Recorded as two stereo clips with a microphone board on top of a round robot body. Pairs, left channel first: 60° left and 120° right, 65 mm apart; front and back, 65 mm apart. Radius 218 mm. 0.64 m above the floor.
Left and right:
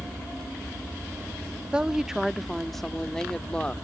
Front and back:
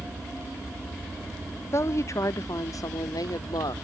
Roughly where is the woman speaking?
Ahead right.